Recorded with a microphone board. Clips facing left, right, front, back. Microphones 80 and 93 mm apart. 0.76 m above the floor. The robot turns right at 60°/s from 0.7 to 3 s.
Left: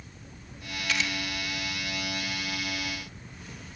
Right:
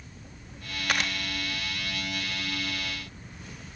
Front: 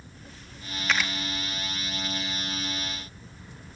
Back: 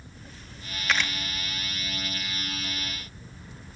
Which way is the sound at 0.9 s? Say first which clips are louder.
Right 2 dB, even; 90° right.